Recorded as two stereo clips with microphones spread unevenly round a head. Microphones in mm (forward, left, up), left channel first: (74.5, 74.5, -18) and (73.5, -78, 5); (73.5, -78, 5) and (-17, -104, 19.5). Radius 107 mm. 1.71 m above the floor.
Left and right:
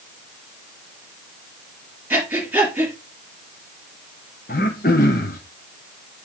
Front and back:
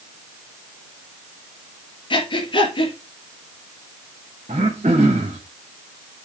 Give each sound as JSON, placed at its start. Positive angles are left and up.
{"t": 2.1, "sound": "breathing", "azimuth_deg": -15, "distance_m": 3.5}
{"t": 4.5, "sound": "throat clearing", "azimuth_deg": 140, "distance_m": 0.9}